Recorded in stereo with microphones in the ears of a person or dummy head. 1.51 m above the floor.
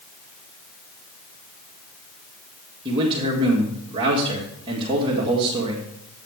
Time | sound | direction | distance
2.9 | a man speaking | 30° right (ahead or behind) | 1.9 m